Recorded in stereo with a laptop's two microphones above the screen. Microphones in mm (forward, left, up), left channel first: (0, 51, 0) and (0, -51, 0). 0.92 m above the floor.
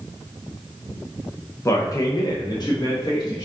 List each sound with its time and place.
1.6 s a man speaking: 30° left (ahead or behind), 1.0 m; by 3.5 s 45° left (ahead or behind), 1.7 m